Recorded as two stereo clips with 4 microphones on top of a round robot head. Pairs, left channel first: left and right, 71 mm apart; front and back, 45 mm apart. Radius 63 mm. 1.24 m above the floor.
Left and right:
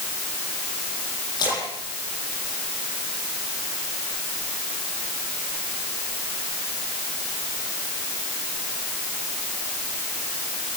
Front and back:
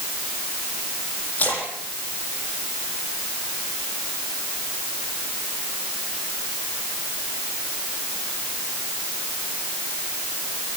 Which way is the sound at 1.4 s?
50° left.